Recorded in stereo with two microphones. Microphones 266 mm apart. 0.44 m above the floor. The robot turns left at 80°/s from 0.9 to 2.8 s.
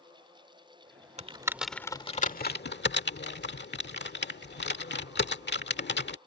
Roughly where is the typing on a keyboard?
Right.